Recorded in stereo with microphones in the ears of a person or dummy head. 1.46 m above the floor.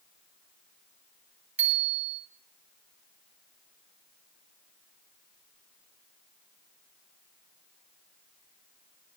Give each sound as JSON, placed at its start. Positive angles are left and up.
{"t": 1.6, "sound": "a bicycle bell", "side_deg": -5, "distance_m": 4.0}